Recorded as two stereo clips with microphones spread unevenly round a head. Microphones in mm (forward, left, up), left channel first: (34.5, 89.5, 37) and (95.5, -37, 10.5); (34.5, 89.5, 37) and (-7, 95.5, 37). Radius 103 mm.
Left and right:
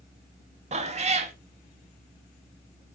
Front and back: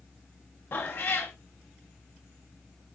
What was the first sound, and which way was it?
A cat meowing, 30° right.